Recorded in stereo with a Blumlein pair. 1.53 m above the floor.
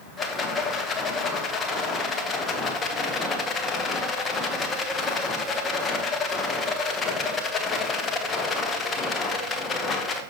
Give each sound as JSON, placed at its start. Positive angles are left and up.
{"t": 0.2, "sound": "a rattle", "azimuth_deg": 20, "distance_m": 1.1}